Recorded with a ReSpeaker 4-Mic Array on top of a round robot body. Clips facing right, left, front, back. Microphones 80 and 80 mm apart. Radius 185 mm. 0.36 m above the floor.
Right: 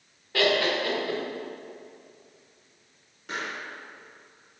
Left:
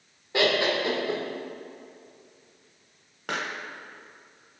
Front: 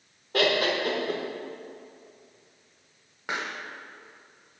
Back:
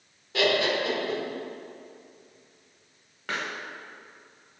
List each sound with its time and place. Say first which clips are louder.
0.3 s laughter: even, even; 25° left, 1.6 m
3.3 s a pop: left 2 dB, even; 75° left, 0.8 m